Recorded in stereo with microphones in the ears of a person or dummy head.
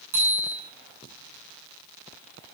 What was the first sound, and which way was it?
A bicycle bell, 10° right (ahead or behind).